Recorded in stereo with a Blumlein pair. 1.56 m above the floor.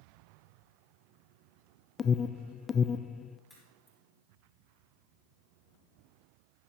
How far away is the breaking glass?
I don't hear breaking glass.